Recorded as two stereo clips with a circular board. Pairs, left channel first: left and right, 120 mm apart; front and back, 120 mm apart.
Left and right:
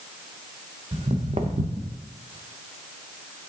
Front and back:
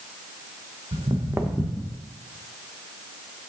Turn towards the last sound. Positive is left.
turn(degrees=-65)